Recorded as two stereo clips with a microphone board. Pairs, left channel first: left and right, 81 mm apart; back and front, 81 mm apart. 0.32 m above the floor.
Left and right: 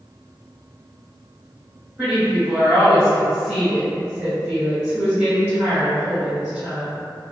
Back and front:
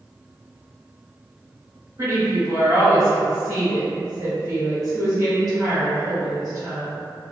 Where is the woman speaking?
15° right, 1.9 m.